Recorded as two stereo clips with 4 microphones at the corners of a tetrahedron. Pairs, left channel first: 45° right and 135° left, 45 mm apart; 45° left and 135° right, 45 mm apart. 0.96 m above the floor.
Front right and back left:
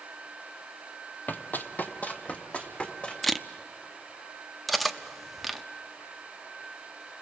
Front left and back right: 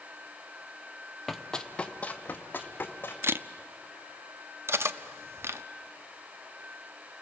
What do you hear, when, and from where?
1.3 s running footsteps: 45° right, 1.2 m; by 3.1 s 15° left, 2.5 m
3.2 s a camera shutter: 130° right, 0.6 m
4.7 s cutlery clinking: 135° right, 0.8 m